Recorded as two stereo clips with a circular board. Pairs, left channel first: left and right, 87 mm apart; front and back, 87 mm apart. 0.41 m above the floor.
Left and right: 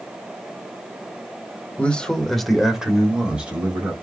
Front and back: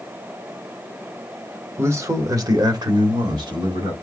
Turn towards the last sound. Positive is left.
turn(degrees=-160)